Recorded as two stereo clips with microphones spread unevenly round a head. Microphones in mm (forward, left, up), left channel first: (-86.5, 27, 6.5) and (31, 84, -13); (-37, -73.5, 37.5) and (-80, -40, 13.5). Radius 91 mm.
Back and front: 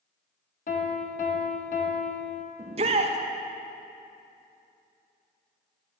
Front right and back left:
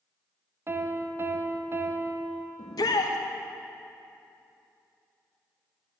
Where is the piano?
175° right, 1.6 m.